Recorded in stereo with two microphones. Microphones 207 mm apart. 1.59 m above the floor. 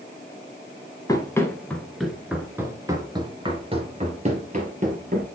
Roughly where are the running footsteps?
Centre.